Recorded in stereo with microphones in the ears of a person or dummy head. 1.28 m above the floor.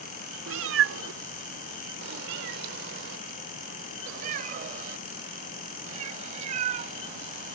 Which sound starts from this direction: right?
A cat meowing, at 0.5 s.